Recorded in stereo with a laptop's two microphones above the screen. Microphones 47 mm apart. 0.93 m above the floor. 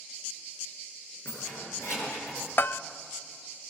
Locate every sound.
1.2 s keys jangling: 70° left (ahead or behind), 9.5 m
2.6 s a bell: 50° left (ahead or behind), 0.5 m